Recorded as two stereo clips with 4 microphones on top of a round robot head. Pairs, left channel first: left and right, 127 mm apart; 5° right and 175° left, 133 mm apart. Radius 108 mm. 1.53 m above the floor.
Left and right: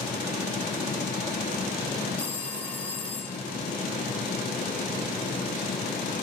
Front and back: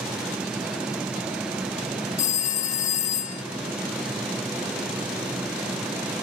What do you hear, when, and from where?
2.2 s a phone ringing: 10° left, 0.7 m